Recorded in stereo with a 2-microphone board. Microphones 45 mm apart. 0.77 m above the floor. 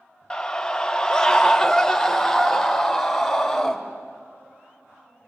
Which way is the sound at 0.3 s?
15° left (ahead or behind).